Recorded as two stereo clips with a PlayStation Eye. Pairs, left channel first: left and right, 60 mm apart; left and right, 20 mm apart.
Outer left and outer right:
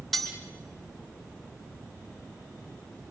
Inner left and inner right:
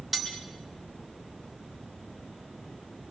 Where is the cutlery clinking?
Centre (ahead or behind), 4 m.